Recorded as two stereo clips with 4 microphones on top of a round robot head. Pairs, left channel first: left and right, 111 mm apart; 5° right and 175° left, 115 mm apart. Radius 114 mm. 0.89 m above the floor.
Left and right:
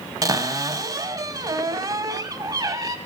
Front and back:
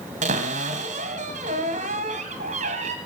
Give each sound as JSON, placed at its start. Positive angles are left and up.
{"t": 0.2, "sound": "a cupboard door", "azimuth_deg": -145, "distance_m": 1.5}